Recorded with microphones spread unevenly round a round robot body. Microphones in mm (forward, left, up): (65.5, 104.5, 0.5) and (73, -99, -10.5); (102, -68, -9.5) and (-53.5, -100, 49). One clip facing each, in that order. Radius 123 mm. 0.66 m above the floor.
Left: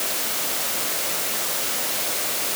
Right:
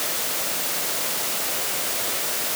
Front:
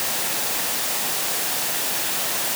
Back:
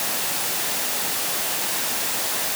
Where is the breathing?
No breathing in this recording.